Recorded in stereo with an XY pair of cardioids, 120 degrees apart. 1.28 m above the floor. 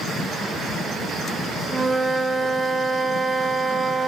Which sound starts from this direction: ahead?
A flute, at 1.7 s.